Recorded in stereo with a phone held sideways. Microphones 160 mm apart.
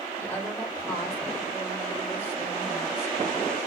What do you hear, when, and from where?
0.2 s a woman speaking: 15° left (ahead or behind), 4.5 m